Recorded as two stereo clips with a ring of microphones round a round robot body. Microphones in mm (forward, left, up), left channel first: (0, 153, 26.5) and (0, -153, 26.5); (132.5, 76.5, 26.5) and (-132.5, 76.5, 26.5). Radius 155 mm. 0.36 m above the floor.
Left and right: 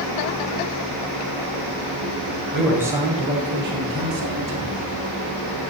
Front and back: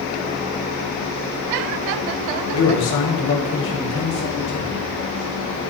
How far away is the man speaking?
About 1.8 m.